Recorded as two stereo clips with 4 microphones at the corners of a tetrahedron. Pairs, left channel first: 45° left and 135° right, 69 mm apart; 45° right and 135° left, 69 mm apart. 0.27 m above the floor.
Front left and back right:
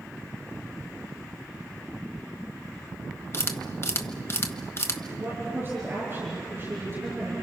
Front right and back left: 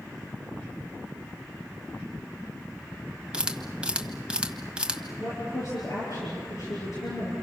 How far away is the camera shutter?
About 1.3 m.